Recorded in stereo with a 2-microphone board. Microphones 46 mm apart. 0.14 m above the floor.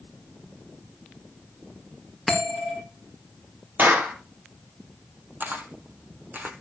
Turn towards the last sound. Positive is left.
turn(degrees=-40)  # may be behind; listen again after turning